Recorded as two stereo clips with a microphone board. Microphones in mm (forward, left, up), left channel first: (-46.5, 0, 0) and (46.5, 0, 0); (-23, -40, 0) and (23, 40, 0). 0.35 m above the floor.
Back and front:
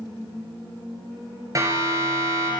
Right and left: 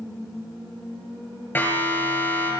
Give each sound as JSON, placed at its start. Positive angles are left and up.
{"t": 1.6, "sound": "a siren", "azimuth_deg": -50, "distance_m": 7.5}